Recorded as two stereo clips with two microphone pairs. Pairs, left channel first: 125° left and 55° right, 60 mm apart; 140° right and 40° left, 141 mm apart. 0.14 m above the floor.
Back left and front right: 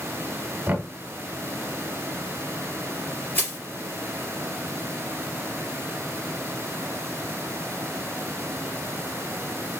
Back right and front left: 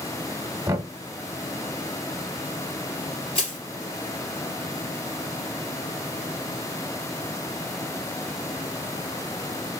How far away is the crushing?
About 2.5 m.